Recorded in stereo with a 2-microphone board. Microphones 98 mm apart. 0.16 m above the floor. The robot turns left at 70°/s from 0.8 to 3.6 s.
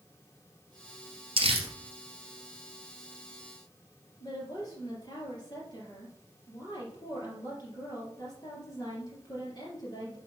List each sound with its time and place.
1.4 s crumpling: 65° right (ahead or behind), 1.7 m; by 1.7 s 70° right (ahead or behind), 1.7 m
4.2 s a woman speaking: 45° left (ahead or behind), 3.5 m